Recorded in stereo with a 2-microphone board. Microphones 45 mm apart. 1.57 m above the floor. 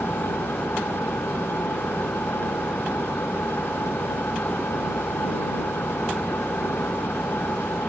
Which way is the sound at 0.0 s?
60° left (ahead or behind).